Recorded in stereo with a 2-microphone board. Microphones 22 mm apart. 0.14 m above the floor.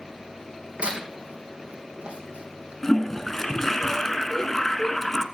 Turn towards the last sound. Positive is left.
turn(degrees=20)  # may be behind; listen again after turning